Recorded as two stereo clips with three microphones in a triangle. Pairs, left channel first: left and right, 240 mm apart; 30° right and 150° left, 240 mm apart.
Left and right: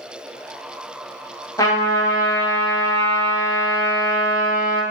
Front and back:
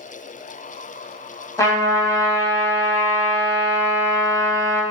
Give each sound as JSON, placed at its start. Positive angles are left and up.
{"t": 1.6, "sound": "a trumpet", "azimuth_deg": 30, "distance_m": 0.7}